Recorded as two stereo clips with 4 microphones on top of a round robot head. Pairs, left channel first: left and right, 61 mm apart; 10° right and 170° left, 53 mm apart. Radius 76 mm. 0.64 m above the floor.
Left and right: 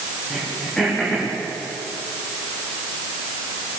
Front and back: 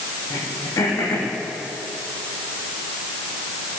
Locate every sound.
0.3 s throat clearing: 10° left, 7.5 m